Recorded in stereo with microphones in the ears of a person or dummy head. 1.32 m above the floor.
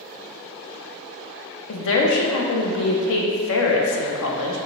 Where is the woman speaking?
70° left (ahead or behind), 0.7 m.